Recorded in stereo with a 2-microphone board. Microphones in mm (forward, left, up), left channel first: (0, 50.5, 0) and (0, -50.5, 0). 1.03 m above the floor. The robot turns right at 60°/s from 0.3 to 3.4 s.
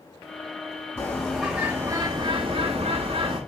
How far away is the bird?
About 7 m.